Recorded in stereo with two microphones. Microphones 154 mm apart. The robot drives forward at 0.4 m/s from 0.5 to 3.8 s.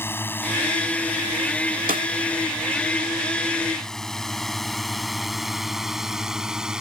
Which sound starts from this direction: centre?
A drone, at 0.0 s.